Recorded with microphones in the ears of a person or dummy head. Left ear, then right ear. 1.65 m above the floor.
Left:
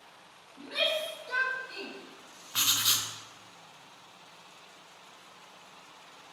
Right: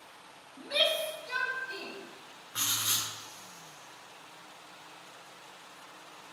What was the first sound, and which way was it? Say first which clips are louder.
A shout: right 2 dB; 70° right (ahead or behind).